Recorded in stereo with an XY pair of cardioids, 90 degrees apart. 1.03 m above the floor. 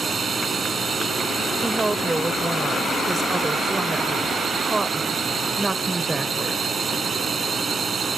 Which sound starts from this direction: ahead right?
A drone, at 0.0 s.